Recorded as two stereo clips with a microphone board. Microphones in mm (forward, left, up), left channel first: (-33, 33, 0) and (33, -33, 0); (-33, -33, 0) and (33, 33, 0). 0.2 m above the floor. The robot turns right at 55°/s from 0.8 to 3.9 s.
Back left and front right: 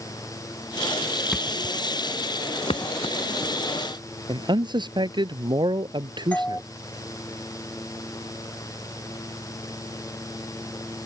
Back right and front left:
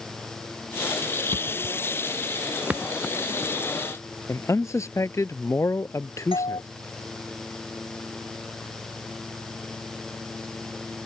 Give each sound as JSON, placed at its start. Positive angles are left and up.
{"t": 1.3, "sound": "a thud", "azimuth_deg": 45}
{"t": 4.3, "sound": "a man speaking", "azimuth_deg": -80}
{"t": 6.3, "sound": "a doorbell", "azimuth_deg": -150}